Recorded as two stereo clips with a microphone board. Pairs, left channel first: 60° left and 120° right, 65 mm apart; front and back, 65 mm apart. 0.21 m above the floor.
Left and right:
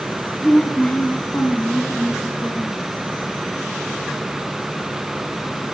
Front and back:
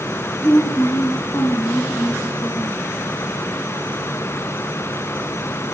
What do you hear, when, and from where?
0.4 s a woman speaking: 5° right, 2.0 m; by 2.8 s 10° left, 3 m